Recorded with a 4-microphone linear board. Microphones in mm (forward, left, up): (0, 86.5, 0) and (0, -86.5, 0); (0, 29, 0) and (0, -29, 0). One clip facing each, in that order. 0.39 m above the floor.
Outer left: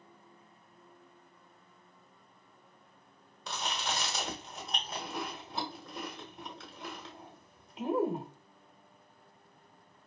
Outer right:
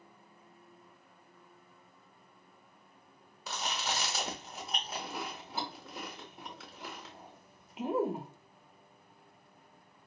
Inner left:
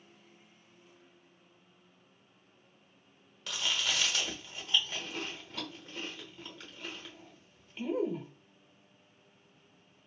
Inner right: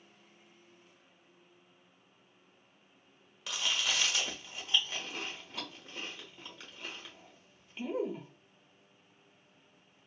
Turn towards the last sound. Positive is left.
turn(degrees=-5)  # may be behind; listen again after turning